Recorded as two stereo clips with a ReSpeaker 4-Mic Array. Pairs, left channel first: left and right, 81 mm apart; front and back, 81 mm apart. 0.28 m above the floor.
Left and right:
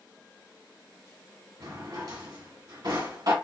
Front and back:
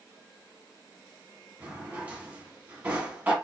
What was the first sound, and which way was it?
A drawer, 110° right.